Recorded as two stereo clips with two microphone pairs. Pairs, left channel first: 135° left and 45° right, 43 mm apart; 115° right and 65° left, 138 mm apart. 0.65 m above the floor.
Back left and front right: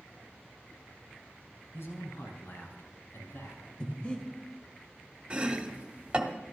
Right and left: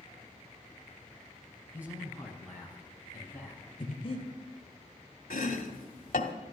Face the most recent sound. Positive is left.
turn(degrees=-115)